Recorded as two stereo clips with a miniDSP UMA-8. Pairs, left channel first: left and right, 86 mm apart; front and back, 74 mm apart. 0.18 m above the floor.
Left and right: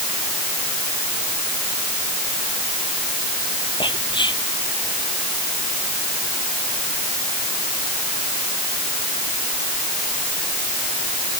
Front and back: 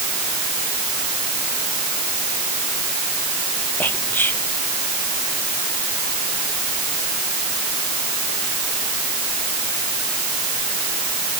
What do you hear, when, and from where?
3.8 s whispering: 60° left